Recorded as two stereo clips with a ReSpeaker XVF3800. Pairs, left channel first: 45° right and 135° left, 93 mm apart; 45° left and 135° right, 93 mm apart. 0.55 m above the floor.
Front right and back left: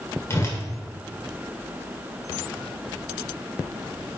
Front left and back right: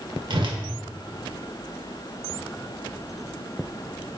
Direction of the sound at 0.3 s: 105° right.